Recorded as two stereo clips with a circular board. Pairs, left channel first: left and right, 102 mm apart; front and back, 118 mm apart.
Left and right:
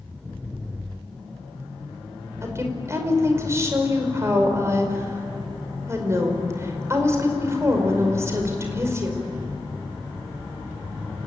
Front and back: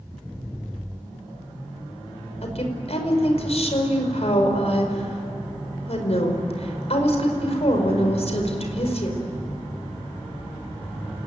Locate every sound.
2.4 s a woman speaking: 25° right, 5 m